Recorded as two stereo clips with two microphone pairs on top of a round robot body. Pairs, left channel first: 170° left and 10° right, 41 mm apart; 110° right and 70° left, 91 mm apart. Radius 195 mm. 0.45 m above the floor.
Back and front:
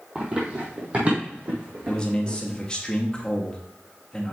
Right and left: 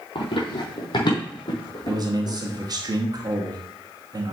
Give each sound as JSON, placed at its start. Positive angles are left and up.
{"t": 0.1, "sound": "running footsteps", "azimuth_deg": -80, "distance_m": 1.3}
{"t": 1.9, "sound": "a man speaking", "azimuth_deg": 105, "distance_m": 1.4}